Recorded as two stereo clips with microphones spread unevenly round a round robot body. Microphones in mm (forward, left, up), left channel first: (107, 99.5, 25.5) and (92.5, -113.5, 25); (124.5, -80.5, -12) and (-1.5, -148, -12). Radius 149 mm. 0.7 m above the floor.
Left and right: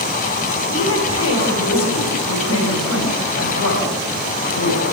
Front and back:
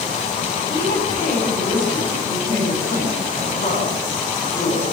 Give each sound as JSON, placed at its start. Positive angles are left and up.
{"t": 0.7, "sound": "a woman speaking", "azimuth_deg": 100, "distance_m": 5.0}